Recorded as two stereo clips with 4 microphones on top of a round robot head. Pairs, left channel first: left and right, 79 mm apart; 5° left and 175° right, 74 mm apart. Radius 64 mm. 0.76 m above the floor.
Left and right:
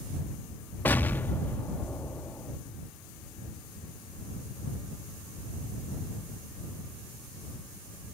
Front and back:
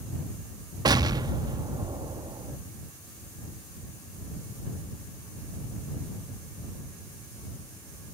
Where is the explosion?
160° left.